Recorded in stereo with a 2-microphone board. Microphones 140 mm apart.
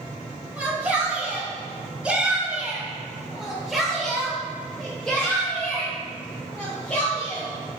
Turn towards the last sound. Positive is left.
turn(degrees=10)  # may be behind; listen again after turning